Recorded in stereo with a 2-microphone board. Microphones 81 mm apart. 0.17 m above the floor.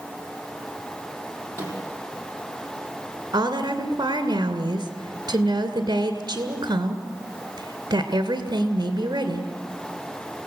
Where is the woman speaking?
50° right (ahead or behind), 2 m.